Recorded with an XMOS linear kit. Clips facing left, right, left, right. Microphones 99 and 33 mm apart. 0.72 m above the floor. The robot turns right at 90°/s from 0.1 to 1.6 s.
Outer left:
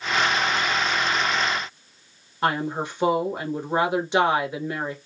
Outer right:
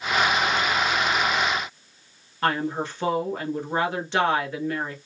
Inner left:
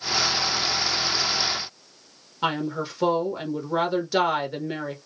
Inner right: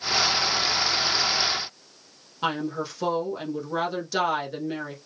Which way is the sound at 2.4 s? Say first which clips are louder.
Even, inner left 1 dB; 15° left (ahead or behind).